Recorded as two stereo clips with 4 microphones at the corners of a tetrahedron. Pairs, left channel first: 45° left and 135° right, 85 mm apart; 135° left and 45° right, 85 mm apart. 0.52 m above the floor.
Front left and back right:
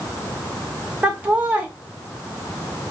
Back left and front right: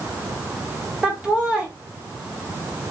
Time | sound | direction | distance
1.0 | laughter | 105° right | 0.8 m